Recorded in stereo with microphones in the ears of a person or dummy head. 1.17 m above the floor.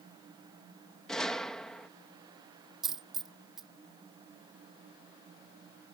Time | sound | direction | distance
1.1 | a gunshot | centre (ahead or behind) | ?
2.8 | a dropped coin | centre (ahead or behind) | ?